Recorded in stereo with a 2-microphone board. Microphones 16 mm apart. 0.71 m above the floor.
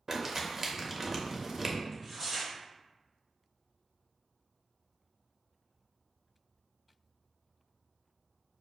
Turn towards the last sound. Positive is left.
turn(degrees=-30)  # may be behind; listen again after turning